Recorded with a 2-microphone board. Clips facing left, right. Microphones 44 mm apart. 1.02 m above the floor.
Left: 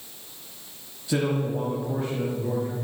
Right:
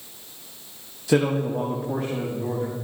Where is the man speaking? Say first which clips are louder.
Right 4 dB; 65° right (ahead or behind), 1.1 m; by 2.8 s 75° right (ahead or behind), 3.5 m.